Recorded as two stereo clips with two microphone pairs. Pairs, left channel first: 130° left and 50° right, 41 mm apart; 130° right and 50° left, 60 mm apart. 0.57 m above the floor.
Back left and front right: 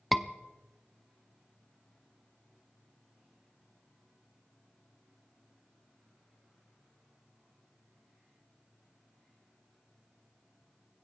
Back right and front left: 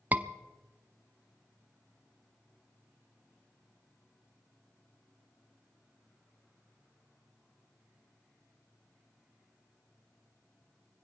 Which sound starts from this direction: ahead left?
A scream, at 0.1 s.